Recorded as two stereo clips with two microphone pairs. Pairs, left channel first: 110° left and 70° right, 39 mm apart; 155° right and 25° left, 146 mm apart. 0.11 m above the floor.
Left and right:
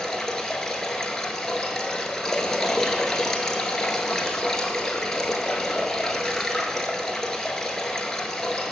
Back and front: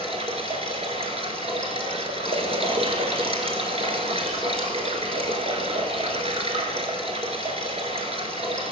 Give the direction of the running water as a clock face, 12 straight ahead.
11 o'clock.